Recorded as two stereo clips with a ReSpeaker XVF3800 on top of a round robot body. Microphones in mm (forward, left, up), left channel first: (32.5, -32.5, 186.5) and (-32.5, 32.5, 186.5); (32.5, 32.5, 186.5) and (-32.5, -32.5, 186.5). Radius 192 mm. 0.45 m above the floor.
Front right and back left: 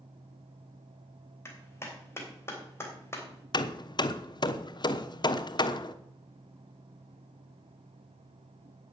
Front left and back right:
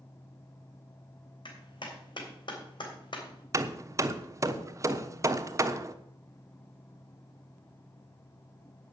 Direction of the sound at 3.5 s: 80° right.